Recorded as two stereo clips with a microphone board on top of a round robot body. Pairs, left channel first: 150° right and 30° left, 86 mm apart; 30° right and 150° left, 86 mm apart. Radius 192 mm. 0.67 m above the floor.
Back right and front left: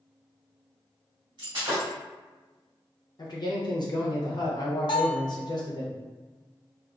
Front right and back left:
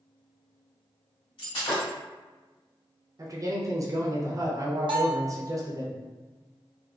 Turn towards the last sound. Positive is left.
turn(degrees=180)